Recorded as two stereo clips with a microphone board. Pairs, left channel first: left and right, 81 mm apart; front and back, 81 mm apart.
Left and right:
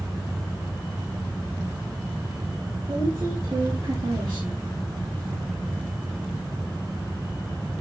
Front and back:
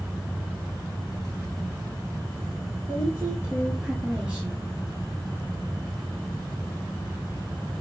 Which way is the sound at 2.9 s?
120° right.